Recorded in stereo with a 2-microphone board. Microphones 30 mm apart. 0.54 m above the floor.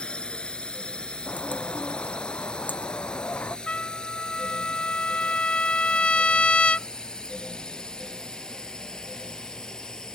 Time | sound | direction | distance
0.0 | a drone | 35° left (ahead or behind) | ?
1.3 | a bird | 80° left | ?
3.7 | a trumpet | 45° left (ahead or behind) | ?